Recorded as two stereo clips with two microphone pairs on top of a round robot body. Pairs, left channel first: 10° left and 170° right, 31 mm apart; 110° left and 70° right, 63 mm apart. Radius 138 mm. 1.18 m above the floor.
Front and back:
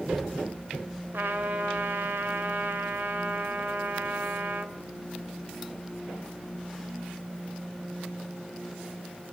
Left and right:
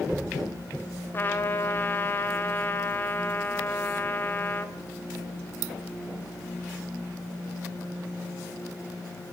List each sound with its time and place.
1.1 s a trumpet: 170° left, 3.5 m